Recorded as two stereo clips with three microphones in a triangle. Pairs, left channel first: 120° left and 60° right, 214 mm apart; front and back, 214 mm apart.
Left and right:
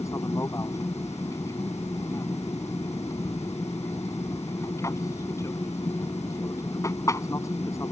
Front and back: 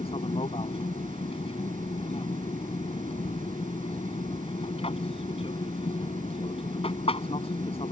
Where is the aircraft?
50° left.